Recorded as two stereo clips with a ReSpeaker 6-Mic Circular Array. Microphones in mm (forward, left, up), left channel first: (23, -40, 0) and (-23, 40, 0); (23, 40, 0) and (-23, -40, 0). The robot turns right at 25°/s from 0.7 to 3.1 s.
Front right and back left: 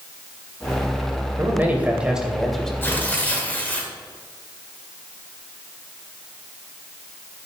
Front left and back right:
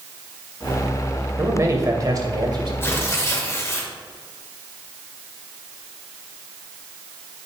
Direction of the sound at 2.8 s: Straight ahead.